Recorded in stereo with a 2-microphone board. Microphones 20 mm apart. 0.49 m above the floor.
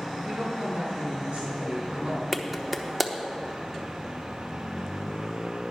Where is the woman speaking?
60° right (ahead or behind), 4 m.